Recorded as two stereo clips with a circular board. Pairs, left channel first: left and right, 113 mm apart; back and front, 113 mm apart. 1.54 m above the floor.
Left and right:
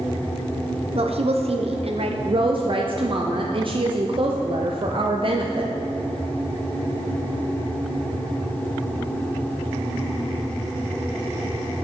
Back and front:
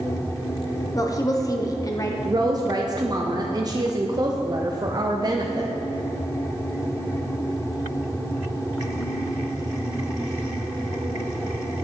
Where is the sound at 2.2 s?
50° right, 0.6 m.